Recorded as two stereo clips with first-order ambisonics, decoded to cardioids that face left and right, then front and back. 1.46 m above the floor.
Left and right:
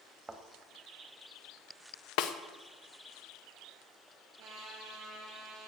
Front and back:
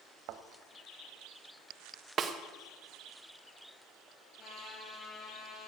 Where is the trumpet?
60° right, 4.5 m.